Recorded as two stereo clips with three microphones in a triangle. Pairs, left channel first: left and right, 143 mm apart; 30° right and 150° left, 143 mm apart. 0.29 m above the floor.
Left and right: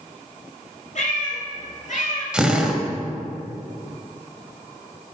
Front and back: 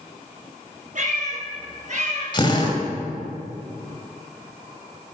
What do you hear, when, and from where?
0.9 s a cat meowing: 120° left, 5 m; by 2.2 s 115° left, 3.5 m
2.3 s a drill: 10° right, 1.8 m